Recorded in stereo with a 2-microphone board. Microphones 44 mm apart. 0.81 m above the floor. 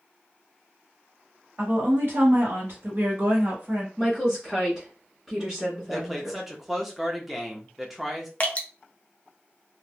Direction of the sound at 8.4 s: 35° left (ahead or behind).